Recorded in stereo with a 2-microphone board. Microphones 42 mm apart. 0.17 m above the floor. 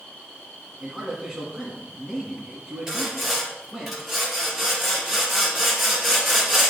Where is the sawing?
10° right (ahead or behind), 3 m.